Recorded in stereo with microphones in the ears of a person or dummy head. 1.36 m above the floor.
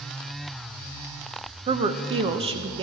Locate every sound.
1.7 s a woman speaking: 35° right (ahead or behind), 0.7 m